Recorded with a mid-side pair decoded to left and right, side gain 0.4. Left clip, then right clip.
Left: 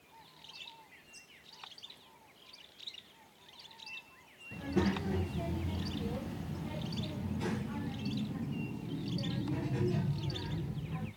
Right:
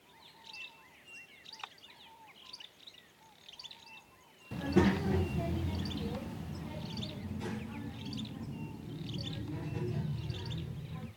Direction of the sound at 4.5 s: 50° right.